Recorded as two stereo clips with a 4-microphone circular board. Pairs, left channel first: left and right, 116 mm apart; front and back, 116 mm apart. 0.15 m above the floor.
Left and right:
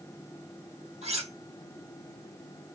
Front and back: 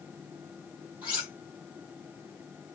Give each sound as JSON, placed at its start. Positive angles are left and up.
{"t": 1.0, "sound": "cutlery clinking", "azimuth_deg": -100, "distance_m": 2.5}